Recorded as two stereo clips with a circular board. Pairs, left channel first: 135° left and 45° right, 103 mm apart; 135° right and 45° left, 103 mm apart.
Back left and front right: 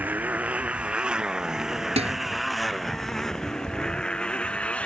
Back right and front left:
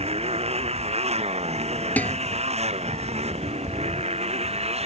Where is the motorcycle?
30° left; by 4.8 s 55° left.